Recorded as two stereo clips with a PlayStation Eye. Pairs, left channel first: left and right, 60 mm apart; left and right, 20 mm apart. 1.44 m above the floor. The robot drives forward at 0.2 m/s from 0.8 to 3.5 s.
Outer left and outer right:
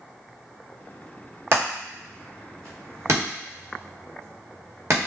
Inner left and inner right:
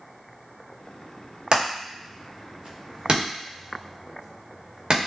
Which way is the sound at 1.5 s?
50° right (ahead or behind).